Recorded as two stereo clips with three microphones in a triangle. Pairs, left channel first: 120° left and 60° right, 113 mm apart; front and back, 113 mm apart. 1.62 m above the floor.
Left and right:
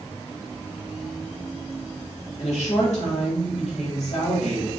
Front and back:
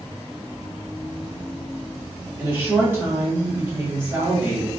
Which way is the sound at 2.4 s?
110° left.